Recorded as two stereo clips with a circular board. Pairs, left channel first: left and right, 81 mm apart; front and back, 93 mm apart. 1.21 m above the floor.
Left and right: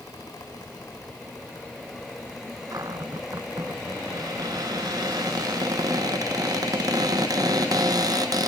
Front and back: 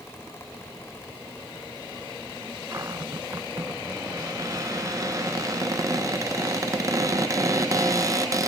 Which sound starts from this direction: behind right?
A cupboard door, at 2.7 s.